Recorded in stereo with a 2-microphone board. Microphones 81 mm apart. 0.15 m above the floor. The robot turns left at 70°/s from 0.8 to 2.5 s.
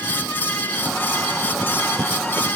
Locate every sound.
Only background noise.